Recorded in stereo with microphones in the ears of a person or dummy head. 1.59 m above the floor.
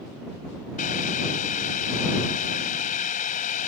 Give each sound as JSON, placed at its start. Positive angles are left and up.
{"t": 0.8, "sound": "boiling", "side_deg": 45}